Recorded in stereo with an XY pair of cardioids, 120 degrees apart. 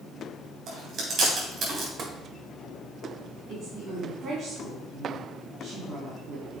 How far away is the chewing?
About 3.5 m.